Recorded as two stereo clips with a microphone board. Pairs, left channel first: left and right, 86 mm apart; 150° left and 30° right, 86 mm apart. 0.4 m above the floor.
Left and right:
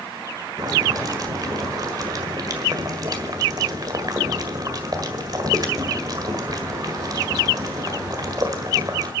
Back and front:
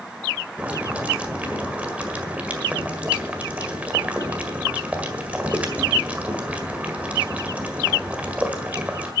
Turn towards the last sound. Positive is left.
turn(degrees=-100)